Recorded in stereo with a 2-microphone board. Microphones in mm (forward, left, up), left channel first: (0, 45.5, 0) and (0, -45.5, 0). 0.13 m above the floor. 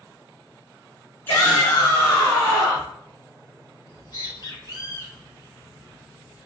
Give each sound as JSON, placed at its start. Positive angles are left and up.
{"t": 1.3, "sound": "a shout", "side_deg": 20, "distance_m": 1.8}
{"t": 3.9, "sound": "a bird", "side_deg": 40, "distance_m": 1.9}